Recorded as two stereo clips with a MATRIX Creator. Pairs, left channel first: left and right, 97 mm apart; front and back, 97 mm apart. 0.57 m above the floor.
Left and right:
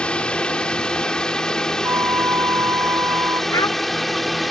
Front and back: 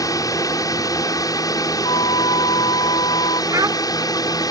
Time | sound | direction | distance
0.0 | a drone | 20° left | ?
1.8 | a flute | 30° right | ?
3.5 | a child speaking | 135° left | ?